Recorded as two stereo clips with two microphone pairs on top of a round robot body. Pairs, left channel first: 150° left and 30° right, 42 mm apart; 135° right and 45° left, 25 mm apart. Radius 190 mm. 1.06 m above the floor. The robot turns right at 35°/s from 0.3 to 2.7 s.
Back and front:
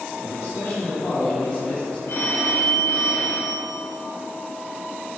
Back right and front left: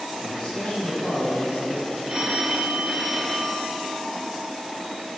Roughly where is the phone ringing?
Left.